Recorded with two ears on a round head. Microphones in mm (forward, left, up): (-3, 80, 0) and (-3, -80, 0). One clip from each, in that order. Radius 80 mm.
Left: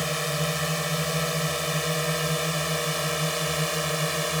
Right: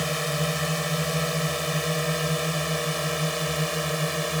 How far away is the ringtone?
No ringtone in this recording.